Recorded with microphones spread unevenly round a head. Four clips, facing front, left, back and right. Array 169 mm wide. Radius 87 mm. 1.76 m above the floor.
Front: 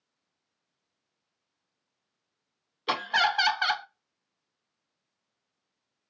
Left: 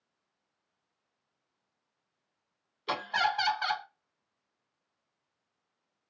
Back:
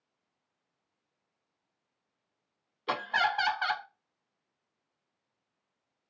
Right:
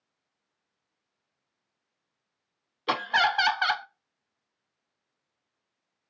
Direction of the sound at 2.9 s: 55° right.